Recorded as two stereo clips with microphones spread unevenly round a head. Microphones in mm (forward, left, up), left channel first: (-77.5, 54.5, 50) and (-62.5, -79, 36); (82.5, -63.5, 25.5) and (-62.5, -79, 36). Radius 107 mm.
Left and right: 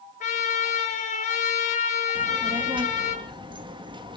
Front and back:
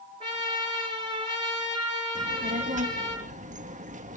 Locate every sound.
0.2 s a trumpet: 115° left, 6 m
2.1 s a child speaking: 140° right, 2 m